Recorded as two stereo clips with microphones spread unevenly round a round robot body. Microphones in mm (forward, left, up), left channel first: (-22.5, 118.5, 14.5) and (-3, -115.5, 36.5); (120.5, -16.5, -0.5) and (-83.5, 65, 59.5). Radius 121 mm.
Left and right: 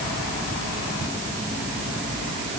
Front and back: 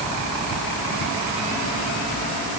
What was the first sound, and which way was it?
Only background noise.